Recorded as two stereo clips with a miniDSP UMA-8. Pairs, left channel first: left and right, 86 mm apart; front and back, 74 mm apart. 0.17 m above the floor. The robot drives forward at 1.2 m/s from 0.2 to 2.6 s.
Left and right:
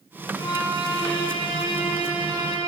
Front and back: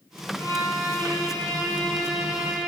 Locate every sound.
0.3 s a violin: 55° left, 4 m; by 2.7 s 100° left, 3 m